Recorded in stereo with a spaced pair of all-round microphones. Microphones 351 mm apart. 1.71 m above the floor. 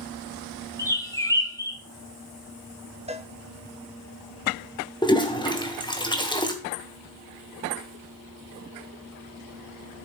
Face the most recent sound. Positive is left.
turn(degrees=10)  # may be behind; listen again after turning